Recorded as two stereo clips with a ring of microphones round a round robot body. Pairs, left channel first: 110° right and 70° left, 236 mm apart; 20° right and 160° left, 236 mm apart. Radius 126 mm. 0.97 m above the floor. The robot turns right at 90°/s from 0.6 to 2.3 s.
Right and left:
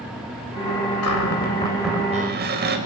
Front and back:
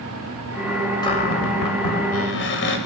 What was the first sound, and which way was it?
A cupboard door, 95° right.